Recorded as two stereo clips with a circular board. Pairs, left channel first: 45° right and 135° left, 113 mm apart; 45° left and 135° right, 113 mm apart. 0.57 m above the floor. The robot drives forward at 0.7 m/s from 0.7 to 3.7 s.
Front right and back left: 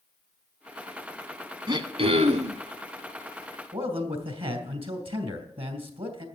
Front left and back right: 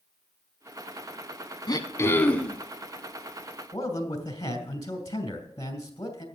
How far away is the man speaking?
About 2.5 m.